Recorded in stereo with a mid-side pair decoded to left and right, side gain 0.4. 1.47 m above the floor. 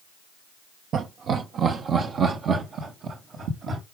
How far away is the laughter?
About 1.0 m.